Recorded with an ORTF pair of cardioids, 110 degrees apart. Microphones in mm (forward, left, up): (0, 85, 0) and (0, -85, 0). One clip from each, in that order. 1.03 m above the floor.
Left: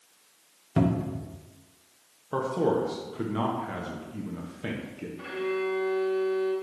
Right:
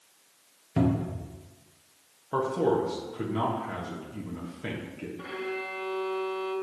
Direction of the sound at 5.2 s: 15° left.